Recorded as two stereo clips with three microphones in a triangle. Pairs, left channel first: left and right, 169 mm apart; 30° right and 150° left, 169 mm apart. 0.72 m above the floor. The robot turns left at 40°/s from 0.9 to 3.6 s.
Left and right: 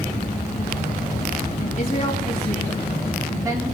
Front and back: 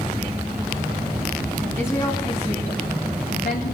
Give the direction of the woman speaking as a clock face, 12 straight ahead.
10 o'clock.